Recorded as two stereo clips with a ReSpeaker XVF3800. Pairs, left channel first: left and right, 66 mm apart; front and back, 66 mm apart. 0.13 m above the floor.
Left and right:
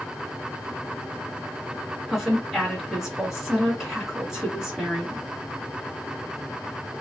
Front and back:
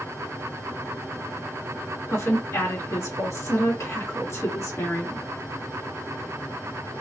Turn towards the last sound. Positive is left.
turn(degrees=-10)